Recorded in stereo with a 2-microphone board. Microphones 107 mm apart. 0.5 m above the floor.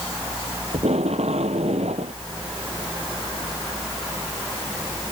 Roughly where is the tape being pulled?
Right.